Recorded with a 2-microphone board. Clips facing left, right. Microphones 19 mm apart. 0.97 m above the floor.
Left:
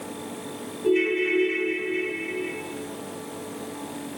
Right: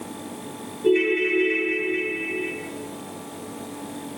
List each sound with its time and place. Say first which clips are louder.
0.8 s a ringtone: right 2 dB; 35° right (ahead or behind), 2.5 m